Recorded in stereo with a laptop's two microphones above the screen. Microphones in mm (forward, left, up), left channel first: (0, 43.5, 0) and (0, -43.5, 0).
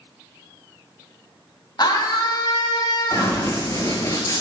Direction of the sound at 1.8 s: 50° left (ahead or behind).